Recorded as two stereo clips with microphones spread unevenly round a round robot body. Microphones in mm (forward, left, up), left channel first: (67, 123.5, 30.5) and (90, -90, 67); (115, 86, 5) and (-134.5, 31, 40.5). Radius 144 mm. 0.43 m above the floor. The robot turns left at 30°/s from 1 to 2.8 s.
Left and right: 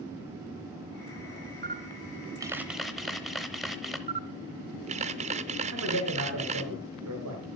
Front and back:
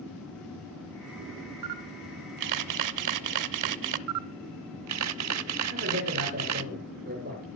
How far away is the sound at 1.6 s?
About 0.7 m.